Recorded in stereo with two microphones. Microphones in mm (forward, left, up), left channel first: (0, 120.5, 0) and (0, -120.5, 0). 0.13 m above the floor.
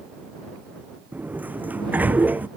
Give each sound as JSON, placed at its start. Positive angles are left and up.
{"t": 1.1, "sound": "a sliding door", "side_deg": -5}